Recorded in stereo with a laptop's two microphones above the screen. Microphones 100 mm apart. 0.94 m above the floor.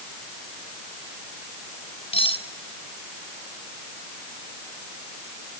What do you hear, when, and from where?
2.1 s cutlery clinking: 75° left (ahead or behind), 2.5 m